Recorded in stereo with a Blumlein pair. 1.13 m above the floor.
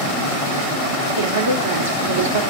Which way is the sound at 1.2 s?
70° right.